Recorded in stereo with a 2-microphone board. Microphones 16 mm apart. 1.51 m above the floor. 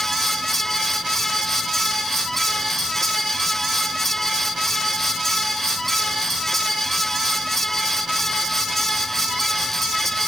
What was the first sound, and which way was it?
Only background noise.